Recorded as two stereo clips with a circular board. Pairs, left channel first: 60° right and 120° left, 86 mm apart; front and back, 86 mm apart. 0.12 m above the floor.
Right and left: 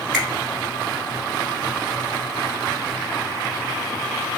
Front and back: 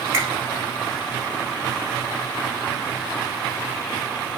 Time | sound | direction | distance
0.1 | a finger snap | 160° right | 1.4 m